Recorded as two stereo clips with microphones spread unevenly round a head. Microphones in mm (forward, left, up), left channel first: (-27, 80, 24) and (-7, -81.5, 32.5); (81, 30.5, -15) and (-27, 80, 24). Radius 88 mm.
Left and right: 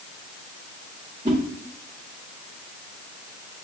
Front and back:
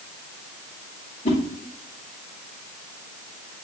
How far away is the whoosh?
About 0.9 m.